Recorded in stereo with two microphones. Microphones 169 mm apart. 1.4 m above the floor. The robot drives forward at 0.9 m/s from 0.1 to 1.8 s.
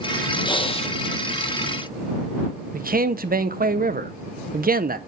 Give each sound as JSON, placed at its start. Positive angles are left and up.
{"t": 0.4, "sound": "breathing", "side_deg": 25, "distance_m": 0.7}
{"t": 2.7, "sound": "a man speaking", "side_deg": -60, "distance_m": 0.5}